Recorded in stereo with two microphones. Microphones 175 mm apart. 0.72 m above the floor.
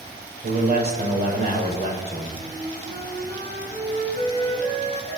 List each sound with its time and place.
0.4 s a man speaking: 65° right (ahead or behind), 4.5 m
2.4 s a flute: 80° right, 4.5 m